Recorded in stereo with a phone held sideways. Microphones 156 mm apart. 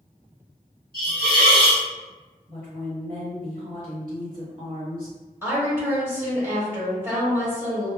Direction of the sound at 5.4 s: 15° right (ahead or behind).